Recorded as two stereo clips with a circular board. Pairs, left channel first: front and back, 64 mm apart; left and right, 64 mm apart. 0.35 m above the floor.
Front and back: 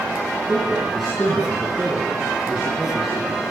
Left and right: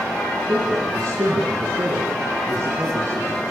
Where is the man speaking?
90° right, 6.5 m.